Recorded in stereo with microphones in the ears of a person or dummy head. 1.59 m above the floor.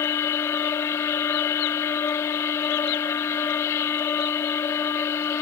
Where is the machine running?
20° left (ahead or behind).